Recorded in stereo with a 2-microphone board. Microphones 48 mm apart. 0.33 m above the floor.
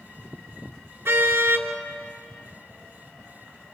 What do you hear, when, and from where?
1.1 s a car horn: 60° right (ahead or behind), 2.5 m